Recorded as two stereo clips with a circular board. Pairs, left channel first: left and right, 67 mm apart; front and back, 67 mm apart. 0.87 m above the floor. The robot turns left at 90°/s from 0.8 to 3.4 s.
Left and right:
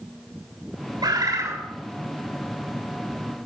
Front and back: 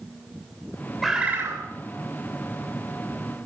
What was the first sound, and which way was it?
A bird, 90° right.